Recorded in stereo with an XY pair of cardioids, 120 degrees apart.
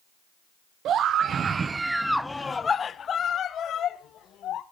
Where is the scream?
60° right, 0.9 m; by 4.6 s 65° left, 1.8 m.